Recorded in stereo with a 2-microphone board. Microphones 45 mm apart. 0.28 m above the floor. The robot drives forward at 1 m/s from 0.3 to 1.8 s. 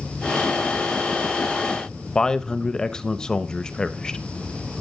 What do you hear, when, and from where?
2.1 s a man speaking: 20° left (ahead or behind), 0.9 m